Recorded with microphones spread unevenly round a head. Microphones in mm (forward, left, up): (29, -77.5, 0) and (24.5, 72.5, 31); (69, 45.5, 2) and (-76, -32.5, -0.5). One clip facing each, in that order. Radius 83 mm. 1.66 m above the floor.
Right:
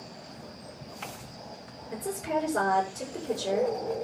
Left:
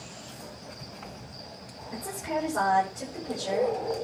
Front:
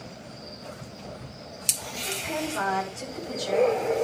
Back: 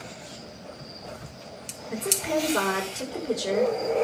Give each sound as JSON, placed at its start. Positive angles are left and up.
{"t": 1.9, "sound": "a woman speaking", "azimuth_deg": -145, "distance_m": 8.0}